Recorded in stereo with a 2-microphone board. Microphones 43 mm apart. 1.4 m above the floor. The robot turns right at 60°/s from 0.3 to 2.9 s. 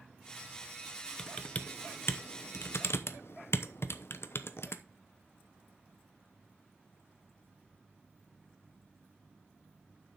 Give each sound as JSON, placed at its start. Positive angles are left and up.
{"t": 1.2, "sound": "typing on a keyboard", "side_deg": 10, "distance_m": 0.8}